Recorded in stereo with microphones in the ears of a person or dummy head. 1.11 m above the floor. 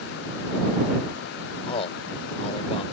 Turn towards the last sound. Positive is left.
turn(degrees=35)  # may be behind; listen again after turning